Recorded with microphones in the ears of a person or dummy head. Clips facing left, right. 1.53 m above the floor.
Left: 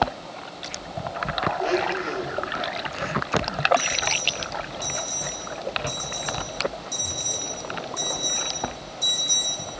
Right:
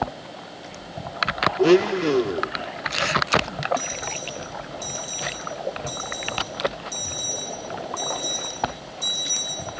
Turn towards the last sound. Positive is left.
turn(degrees=-5)  # may be behind; listen again after turning